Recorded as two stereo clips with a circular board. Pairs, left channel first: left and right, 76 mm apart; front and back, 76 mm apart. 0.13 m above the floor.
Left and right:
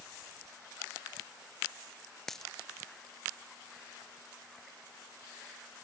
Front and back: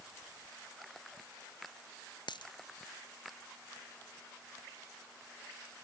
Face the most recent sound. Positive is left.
turn(degrees=5)